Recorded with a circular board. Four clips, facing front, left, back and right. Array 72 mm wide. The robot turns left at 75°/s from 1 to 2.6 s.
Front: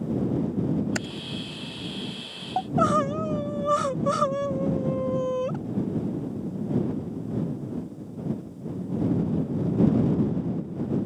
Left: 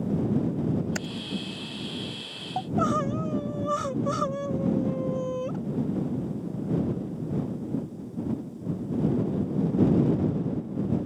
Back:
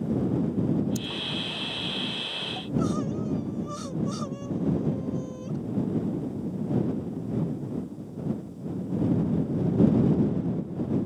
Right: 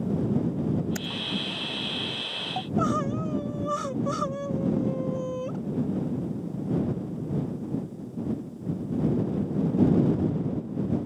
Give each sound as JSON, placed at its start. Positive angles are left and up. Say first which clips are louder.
{"t": 0.9, "sound": "typing on a keyboard", "louder": "left 1 dB, front 2 dB", "azimuth_deg": 20}
{"t": 2.6, "sound": "crying", "louder": "left 1 dB, front 6 dB", "azimuth_deg": 10}